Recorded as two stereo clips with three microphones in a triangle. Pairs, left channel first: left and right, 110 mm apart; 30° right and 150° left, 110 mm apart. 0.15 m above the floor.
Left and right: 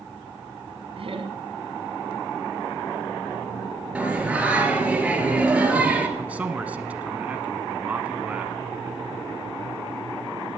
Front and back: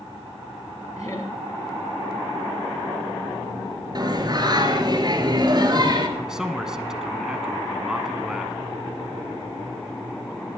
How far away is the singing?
About 2.0 m.